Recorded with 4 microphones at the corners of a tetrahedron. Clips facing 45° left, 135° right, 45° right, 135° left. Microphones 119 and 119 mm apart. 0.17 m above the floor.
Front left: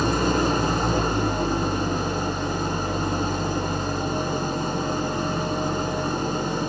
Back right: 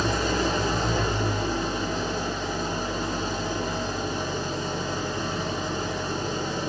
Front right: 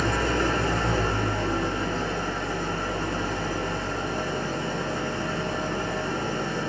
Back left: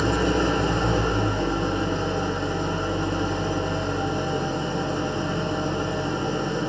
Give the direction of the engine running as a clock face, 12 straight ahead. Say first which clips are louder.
Front left 3 dB, back left 3 dB; 10 o'clock.